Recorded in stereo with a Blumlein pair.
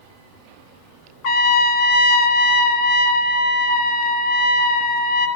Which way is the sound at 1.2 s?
40° left.